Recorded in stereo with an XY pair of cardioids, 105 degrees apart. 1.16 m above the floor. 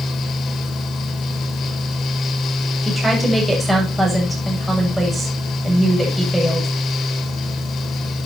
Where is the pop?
I don't hear a pop.